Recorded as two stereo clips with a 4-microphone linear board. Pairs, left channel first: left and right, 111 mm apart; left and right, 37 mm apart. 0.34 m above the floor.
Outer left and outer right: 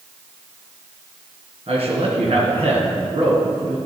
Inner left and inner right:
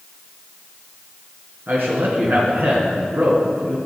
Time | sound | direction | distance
1.7 | a man speaking | 65° right (ahead or behind) | 4 m